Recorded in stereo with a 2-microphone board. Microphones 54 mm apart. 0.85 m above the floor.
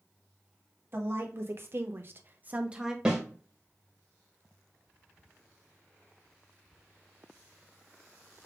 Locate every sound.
0.9 s a woman speaking: 45° right (ahead or behind), 1.2 m; by 3.0 s 10° right (ahead or behind), 0.6 m
3.0 s a snare drum: 15° right (ahead or behind), 1.6 m